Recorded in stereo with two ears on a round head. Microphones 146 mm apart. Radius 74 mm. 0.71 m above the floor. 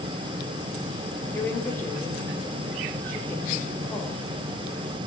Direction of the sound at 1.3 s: 15° left (ahead or behind).